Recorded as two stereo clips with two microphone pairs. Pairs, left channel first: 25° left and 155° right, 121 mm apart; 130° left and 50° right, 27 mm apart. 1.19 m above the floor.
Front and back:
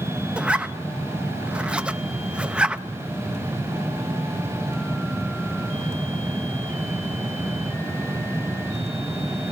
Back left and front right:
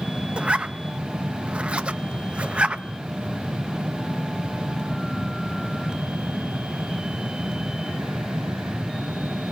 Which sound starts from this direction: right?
A zipper, at 0.4 s.